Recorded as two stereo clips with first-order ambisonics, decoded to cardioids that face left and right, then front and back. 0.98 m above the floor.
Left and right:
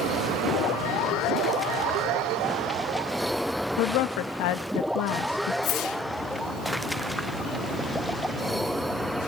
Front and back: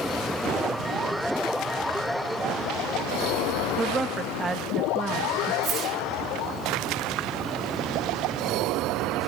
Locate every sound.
3.8 s a woman speaking: 105° left, 0.9 m
5.6 s a whoosh: 130° left, 1.0 m